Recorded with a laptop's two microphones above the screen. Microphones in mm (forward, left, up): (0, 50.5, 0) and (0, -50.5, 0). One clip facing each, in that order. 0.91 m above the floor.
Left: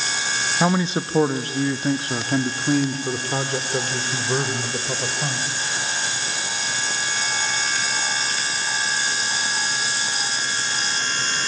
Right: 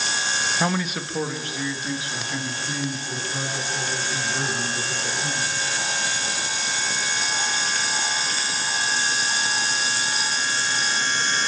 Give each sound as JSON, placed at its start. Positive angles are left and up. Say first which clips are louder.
{"t": 0.6, "sound": "a man speaking", "louder": "left 7 dB", "side_deg": 15, "distance_m": 0.9}